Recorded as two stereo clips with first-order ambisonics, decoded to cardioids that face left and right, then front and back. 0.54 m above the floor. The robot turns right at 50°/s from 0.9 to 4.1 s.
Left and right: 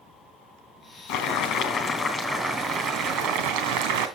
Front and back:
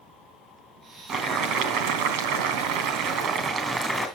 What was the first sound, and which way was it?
Boiling, 130° left.